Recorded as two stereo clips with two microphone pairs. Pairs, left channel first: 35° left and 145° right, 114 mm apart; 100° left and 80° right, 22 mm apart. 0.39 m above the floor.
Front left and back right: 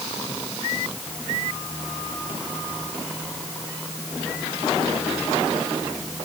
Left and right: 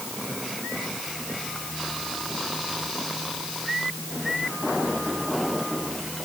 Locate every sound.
Only background noise.